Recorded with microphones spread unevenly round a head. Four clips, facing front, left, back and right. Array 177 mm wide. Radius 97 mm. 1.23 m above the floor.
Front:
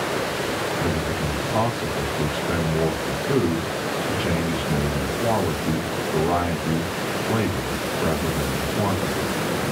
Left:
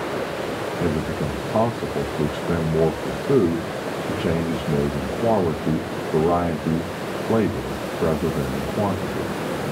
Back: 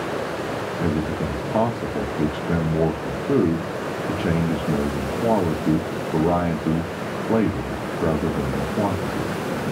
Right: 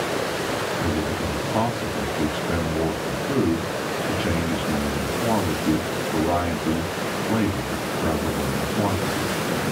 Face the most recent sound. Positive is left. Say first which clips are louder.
# left 1 dB, back 1 dB
turn(degrees=105)